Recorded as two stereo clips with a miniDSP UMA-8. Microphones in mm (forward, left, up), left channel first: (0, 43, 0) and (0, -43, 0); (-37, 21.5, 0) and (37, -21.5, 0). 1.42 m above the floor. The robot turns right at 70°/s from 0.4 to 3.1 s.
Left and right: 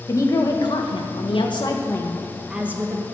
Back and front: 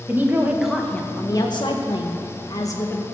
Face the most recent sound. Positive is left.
turn(degrees=-135)